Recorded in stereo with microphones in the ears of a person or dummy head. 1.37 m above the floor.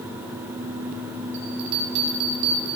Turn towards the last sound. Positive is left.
turn(degrees=-70)  # may be behind; listen again after turning